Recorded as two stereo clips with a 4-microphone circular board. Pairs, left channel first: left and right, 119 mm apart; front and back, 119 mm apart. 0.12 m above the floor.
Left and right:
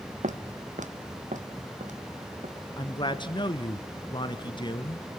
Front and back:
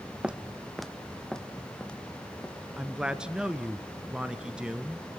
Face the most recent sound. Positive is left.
turn(degrees=100)